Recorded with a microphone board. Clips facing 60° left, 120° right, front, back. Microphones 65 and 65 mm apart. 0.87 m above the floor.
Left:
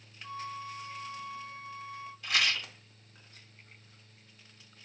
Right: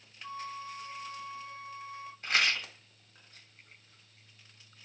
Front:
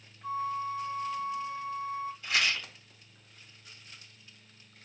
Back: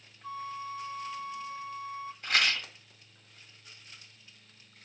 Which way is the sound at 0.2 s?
55° right.